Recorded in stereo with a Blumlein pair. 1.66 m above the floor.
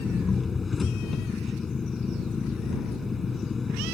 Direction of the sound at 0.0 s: 15° left.